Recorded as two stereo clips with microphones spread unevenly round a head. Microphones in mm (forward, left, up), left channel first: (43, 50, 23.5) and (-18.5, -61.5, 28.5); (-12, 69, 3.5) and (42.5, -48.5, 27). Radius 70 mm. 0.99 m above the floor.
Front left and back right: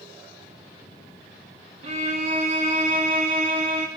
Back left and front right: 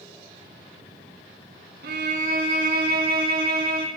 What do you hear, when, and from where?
1.8 s a violin: 75° right, 2.5 m